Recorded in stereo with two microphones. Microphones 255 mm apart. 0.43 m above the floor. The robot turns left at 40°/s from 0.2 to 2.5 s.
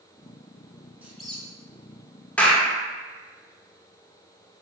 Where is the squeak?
10° right (ahead or behind), 0.6 m; by 1.4 s 10° left (ahead or behind), 0.6 m.